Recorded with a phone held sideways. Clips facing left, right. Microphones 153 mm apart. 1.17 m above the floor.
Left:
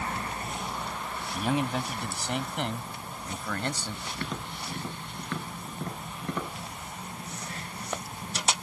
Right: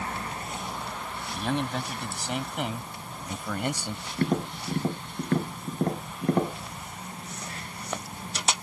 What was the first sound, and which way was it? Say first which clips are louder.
A man speaking: left 1 dB; 5° left (ahead or behind).